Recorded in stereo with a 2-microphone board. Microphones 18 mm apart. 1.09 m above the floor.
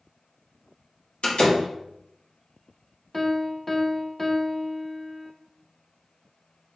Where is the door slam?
70° left (ahead or behind), 1.2 m.